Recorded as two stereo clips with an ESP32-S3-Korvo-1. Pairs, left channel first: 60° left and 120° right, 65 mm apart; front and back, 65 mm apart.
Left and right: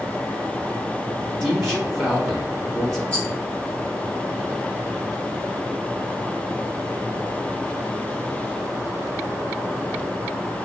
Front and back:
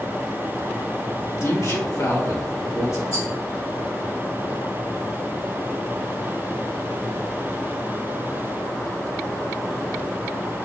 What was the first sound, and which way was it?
A man speaking, 20° right.